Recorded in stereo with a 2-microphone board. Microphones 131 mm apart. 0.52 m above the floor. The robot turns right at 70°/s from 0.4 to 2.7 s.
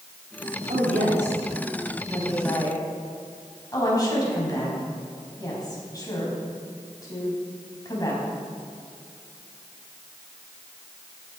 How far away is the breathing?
I don't hear breathing.